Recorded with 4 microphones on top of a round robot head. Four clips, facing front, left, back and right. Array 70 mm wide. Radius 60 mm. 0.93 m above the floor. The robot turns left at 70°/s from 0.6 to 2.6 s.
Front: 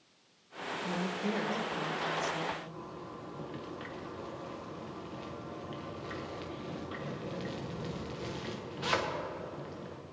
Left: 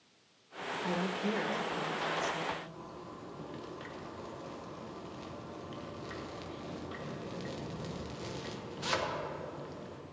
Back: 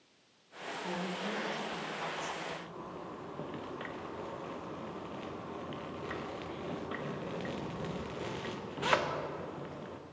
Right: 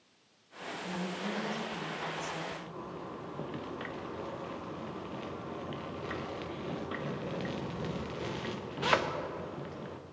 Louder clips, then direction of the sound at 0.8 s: Left 3 dB, front 3 dB; 85° left.